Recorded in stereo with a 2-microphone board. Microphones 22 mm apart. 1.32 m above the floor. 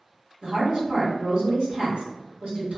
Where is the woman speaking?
85° right, 1.5 m.